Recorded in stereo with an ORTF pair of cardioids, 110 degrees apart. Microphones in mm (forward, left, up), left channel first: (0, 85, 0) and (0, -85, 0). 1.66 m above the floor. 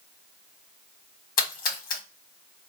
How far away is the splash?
About 1.3 m.